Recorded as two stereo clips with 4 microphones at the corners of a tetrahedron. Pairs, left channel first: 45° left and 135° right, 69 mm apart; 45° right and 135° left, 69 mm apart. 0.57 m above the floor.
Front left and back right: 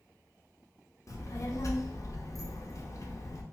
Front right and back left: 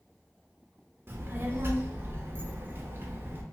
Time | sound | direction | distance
1.1 | a child speaking | 80° left | 0.7 m